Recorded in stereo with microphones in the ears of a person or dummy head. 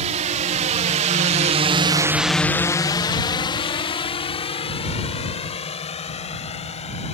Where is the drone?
40° right (ahead or behind); by 7.2 s 30° left (ahead or behind).